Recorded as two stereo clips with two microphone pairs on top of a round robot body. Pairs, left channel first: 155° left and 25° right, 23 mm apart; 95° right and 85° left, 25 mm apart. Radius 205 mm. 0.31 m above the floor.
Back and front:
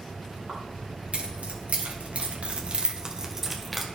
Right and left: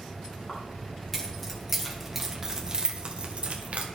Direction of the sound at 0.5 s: 25° right.